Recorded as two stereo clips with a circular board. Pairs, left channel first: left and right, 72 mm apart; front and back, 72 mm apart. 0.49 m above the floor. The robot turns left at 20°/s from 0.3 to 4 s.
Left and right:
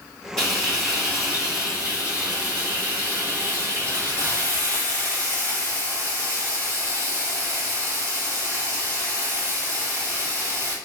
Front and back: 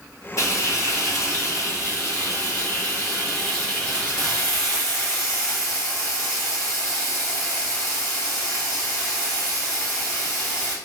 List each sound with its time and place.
0.4 s frying: 10° left, 1.4 m; by 10.8 s 65° right, 1.4 m